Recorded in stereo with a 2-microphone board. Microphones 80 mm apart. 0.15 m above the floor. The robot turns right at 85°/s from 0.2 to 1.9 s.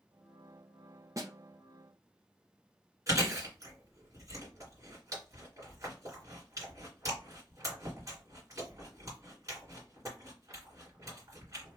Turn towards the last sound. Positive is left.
turn(degrees=-40)  # may be behind; listen again after turning